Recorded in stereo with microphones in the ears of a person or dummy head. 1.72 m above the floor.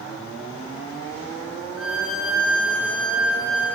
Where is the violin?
5° right (ahead or behind), 0.8 m.